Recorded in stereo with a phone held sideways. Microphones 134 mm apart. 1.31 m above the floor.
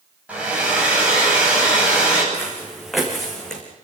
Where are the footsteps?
5° right (ahead or behind), 7 m; by 3.6 s 5° left (ahead or behind), 5.5 m.